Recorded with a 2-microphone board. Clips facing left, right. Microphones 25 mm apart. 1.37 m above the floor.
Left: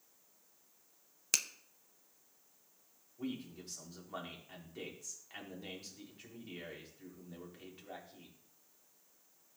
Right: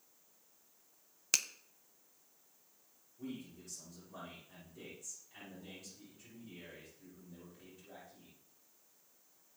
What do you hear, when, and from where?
1.3 s a finger snap: 5° right (ahead or behind), 0.5 m
3.2 s a man speaking: 60° left (ahead or behind), 3.5 m